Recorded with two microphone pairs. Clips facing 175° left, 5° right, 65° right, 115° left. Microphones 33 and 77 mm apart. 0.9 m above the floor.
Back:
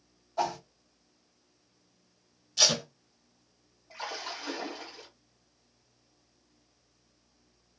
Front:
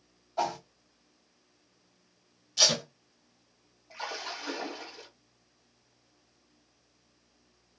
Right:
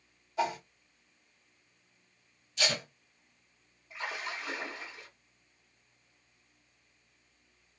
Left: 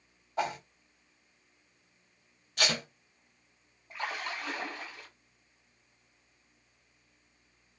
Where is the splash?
80° left, 2 m.